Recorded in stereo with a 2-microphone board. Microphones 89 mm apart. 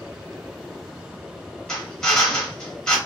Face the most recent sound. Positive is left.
turn(degrees=10)  # may be behind; listen again after turning